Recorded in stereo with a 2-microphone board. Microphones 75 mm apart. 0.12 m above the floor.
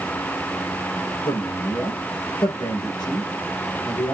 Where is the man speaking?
75° left (ahead or behind), 6 m.